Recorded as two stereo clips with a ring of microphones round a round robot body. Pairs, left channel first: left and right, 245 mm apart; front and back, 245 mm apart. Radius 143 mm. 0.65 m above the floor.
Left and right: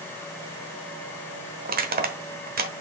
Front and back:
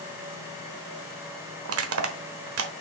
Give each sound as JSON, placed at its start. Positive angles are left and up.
{"t": 1.6, "sound": "crushing", "azimuth_deg": -145, "distance_m": 1.1}